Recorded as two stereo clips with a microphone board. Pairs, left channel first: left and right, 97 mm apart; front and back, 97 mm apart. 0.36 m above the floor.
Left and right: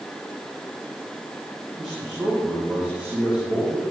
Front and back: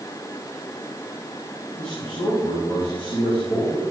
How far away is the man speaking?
About 7.5 m.